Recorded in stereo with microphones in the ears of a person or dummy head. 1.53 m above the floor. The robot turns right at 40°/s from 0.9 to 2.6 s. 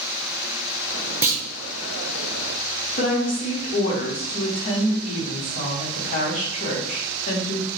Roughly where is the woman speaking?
Left.